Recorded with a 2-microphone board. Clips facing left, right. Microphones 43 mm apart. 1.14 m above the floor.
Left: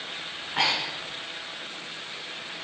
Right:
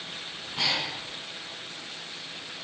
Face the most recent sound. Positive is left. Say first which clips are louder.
# left 4 dB
turn(degrees=50)  # may be behind; listen again after turning